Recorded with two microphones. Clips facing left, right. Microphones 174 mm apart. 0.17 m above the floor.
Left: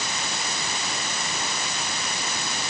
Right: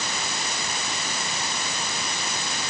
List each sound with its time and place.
Only background noise.